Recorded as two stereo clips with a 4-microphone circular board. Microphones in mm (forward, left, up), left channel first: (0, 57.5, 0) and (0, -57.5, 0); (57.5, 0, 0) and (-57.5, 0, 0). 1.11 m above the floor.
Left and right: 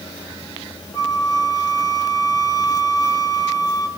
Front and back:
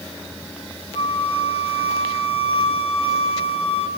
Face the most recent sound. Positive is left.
turn(degrees=35)